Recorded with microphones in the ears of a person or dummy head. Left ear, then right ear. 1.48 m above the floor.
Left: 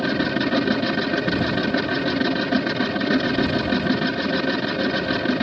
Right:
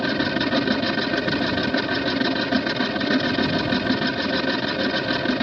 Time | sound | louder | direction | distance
0.0 | a machine running | even | 10° right (ahead or behind) | ?